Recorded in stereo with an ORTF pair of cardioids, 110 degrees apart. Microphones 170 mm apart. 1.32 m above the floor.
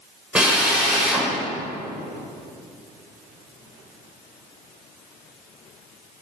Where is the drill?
5° right, 2.5 m.